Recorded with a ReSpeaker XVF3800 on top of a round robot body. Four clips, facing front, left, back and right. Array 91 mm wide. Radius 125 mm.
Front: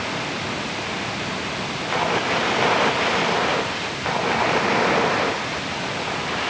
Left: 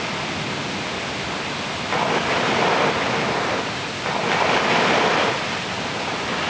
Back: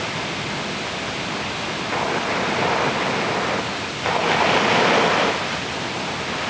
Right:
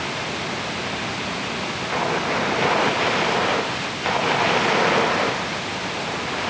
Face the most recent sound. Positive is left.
No sound to turn to.